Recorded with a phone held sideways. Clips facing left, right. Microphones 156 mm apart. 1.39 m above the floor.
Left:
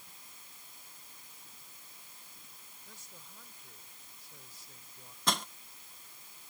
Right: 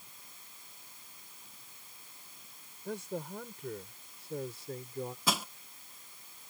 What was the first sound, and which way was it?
A man speaking, 65° right (ahead or behind).